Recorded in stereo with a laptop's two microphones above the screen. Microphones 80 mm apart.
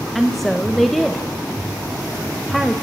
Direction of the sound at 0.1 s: Centre (ahead or behind).